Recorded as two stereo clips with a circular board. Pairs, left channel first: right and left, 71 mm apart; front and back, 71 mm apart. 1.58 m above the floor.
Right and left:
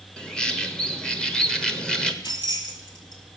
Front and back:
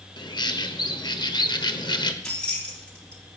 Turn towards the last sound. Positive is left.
turn(degrees=-75)